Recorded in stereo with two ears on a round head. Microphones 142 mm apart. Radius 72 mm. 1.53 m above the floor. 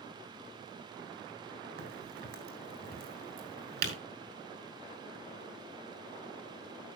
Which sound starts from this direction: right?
A crack, at 1.8 s.